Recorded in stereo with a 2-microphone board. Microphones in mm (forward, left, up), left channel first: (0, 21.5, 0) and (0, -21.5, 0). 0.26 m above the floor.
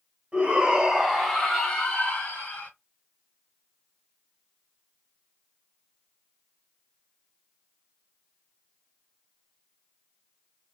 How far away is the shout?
About 1.4 m.